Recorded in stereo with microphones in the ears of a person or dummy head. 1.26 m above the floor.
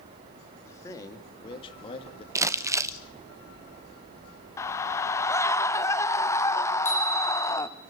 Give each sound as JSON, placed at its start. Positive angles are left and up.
{"t": 0.6, "sound": "a man speaking", "side_deg": 15, "distance_m": 2.5}
{"t": 2.4, "sound": "crumpling", "side_deg": -15, "distance_m": 0.6}
{"t": 4.6, "sound": "a scream", "side_deg": 20, "distance_m": 0.9}
{"t": 6.8, "sound": "a bicycle bell", "side_deg": 10, "distance_m": 6.5}